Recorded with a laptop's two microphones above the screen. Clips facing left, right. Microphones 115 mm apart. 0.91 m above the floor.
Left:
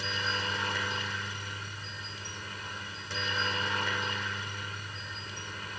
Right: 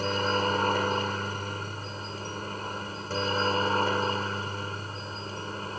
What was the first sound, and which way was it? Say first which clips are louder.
A helicopter: right 9 dB; 45° right (ahead or behind).